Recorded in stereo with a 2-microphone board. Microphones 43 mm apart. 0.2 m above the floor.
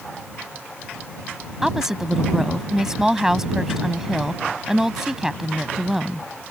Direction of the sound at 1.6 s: 10° right (ahead or behind).